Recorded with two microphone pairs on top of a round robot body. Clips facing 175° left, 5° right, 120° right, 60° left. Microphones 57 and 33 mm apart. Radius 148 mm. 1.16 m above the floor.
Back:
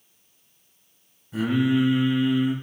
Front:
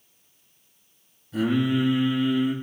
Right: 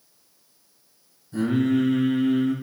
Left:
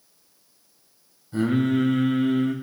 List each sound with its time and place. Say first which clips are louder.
1.3 s singing: back 1 dB, even; 105° left, 6 m